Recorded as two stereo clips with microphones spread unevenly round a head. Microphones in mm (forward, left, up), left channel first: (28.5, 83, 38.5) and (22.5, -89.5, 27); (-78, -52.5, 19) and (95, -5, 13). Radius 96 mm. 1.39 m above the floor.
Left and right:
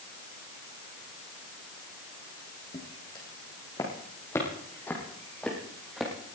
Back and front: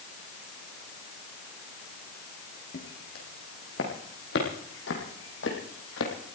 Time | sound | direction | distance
2.7 | footsteps | 155° left | 4.5 m